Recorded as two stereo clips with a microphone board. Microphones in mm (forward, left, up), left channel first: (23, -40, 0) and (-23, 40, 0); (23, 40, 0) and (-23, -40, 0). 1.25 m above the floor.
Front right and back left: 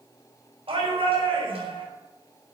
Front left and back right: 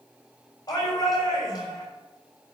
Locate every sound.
0.7 s a shout: 105° left, 6.5 m